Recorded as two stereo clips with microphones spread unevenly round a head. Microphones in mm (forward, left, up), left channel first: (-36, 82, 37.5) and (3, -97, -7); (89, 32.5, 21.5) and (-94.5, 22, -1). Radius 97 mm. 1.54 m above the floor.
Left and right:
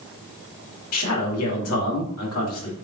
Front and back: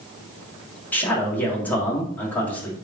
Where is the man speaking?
85° left, 1.4 m.